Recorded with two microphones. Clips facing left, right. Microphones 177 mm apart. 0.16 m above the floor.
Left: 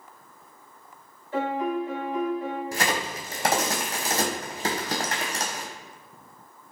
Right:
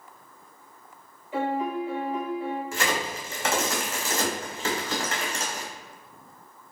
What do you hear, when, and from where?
1.3 s a piano: 15° right (ahead or behind), 1.9 m
2.7 s a crack: 40° left (ahead or behind), 1.1 m